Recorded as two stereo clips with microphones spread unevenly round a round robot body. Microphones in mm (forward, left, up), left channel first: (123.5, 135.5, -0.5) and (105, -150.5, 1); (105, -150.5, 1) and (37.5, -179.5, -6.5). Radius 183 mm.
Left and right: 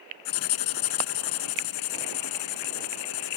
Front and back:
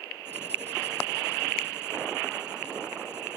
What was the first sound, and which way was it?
Writing, 120° left.